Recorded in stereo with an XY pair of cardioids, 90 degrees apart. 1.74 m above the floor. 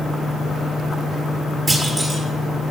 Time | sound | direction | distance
1.7 | a clunk | 20° right | 6.5 m